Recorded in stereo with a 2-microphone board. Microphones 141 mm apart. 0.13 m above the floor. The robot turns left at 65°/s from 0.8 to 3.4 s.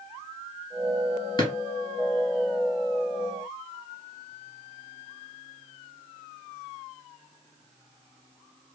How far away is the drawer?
About 1.0 m.